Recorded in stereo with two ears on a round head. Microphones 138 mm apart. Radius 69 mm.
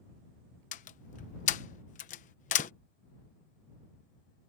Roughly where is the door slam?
Left.